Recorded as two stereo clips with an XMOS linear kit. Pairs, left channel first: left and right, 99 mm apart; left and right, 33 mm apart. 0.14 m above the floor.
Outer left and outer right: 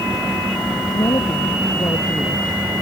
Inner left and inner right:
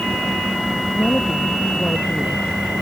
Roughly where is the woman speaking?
Left.